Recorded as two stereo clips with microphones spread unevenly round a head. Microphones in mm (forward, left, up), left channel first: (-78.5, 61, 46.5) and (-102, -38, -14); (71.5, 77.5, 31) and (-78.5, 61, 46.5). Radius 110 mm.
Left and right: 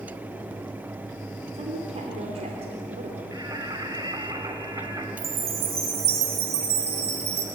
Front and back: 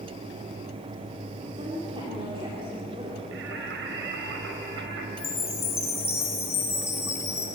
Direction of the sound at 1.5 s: 105° right.